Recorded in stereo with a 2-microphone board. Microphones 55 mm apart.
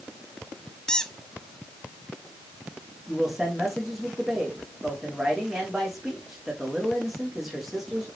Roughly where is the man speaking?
Centre.